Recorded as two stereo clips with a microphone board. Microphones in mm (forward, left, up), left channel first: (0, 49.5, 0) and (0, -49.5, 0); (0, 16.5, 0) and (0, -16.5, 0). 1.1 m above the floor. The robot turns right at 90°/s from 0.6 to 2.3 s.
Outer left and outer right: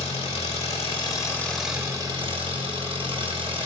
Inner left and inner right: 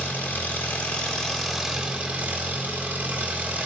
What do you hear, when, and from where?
0.0 s an engine running: 90° left, 1.4 m; by 3.7 s 115° right, 1.4 m